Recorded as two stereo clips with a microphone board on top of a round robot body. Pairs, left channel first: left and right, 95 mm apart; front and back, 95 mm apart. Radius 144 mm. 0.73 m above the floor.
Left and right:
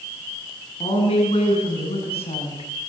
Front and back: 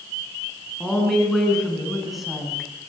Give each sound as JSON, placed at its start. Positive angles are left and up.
{"t": 0.8, "sound": "a woman speaking", "azimuth_deg": 85, "distance_m": 9.0}